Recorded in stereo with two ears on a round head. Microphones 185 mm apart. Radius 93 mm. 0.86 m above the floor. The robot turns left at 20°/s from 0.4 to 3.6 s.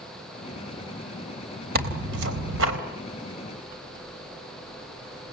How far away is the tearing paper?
About 3.5 m.